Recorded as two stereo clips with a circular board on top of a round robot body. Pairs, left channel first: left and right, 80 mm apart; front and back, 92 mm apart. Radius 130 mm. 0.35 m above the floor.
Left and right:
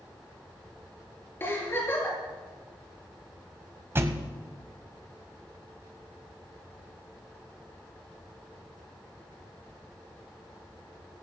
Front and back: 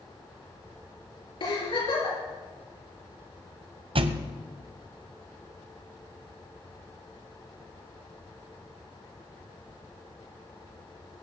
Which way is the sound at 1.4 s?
30° left.